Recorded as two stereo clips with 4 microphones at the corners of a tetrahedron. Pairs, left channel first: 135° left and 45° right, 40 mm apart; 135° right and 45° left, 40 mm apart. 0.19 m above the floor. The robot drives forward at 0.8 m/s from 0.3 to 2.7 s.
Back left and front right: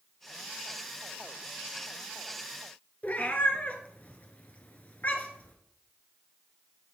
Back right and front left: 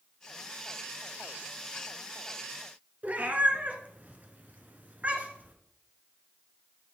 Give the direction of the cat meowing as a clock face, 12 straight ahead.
9 o'clock.